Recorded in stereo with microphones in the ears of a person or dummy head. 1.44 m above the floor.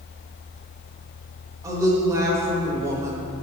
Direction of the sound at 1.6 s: 15° right (ahead or behind).